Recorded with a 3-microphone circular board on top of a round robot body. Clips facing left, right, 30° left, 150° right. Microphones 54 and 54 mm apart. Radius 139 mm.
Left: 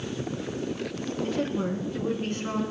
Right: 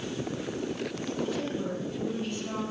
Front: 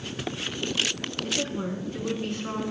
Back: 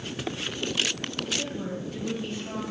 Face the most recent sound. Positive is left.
turn(degrees=55)